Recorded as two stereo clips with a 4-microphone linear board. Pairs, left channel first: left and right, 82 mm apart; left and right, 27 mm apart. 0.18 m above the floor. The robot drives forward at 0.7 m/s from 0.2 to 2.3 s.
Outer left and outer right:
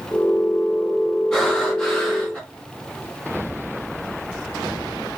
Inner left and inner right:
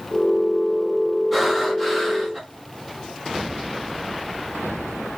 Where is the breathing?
10° left (ahead or behind), 1.3 m; by 2.4 s 5° left (ahead or behind), 1.8 m.